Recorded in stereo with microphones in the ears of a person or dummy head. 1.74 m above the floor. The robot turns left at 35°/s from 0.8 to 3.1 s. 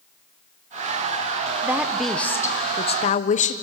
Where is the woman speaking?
170° right, 1.2 m; by 3.5 s 140° left, 1.2 m.